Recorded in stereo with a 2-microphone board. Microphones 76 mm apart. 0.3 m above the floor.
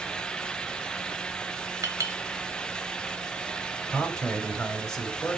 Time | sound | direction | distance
1.8 | a clink | 50° right (ahead or behind) | 0.9 m
3.9 | a man speaking | 10° left (ahead or behind) | 1.1 m